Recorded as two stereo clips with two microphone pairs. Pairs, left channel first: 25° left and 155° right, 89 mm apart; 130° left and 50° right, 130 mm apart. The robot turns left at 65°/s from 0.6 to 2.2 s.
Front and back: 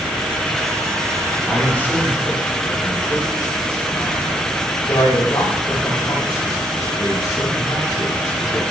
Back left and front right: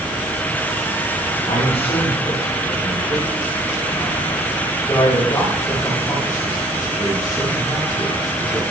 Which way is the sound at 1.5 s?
115° left.